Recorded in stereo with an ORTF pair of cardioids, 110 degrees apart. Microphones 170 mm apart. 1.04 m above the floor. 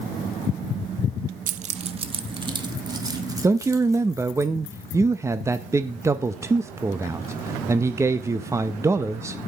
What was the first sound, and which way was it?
Keys jangling, 50° right.